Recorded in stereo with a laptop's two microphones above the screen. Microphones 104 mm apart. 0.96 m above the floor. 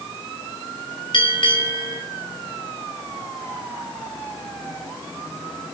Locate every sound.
1.1 s a bell: 55° left (ahead or behind), 4 m